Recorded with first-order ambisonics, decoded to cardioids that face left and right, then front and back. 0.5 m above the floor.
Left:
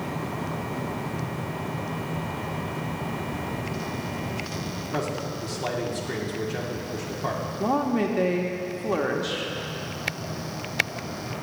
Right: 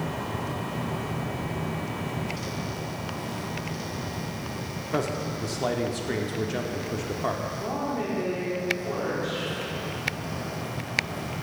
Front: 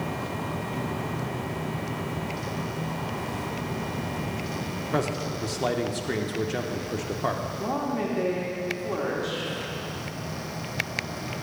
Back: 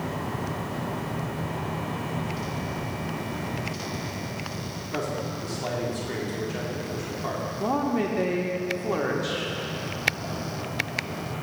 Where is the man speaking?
30° right, 0.7 m.